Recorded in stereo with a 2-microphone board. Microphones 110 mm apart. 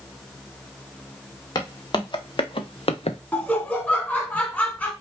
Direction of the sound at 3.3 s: 15° left (ahead or behind).